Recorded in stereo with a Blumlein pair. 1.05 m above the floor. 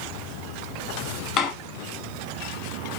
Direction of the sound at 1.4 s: 30° left.